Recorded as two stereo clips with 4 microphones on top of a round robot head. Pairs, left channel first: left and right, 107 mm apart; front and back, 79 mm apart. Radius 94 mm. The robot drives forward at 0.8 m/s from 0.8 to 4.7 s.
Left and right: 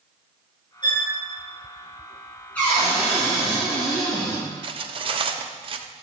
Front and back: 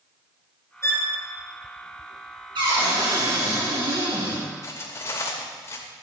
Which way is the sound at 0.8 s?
50° left.